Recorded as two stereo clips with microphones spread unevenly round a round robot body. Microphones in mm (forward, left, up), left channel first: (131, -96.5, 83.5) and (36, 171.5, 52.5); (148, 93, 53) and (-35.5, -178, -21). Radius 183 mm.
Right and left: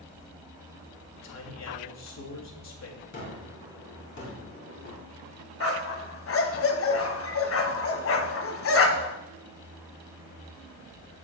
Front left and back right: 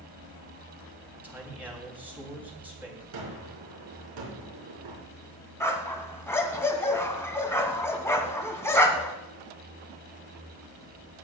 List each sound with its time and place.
1.2 s a man speaking: 45° right, 3.5 m
3.1 s a gunshot: 130° right, 4 m
5.6 s a dog barking: 30° right, 1.6 m